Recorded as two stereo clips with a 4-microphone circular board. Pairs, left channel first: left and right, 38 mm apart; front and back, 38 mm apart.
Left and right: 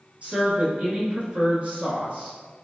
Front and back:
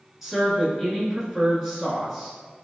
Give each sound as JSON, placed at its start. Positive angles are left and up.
{"t": 0.2, "sound": "a woman speaking", "azimuth_deg": -105, "distance_m": 1.4}